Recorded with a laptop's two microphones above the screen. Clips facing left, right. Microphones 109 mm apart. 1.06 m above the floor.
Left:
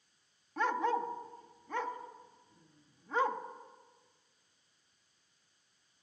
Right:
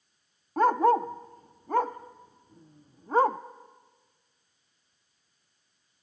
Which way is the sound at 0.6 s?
45° right (ahead or behind).